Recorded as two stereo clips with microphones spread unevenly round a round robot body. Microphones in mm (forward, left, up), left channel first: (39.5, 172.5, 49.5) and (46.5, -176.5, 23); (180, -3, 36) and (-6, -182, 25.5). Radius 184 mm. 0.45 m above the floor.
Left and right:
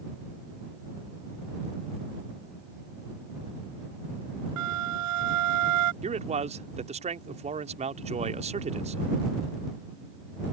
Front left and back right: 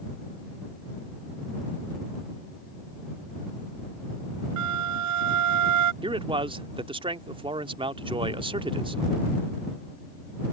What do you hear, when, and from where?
4.6 s a flute: 135° right
6.0 s a man speaking: 110° right